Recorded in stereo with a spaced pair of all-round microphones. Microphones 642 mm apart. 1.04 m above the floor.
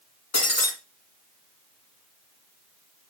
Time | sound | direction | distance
0.3 | breaking glass | 55° left (ahead or behind) | 1.7 m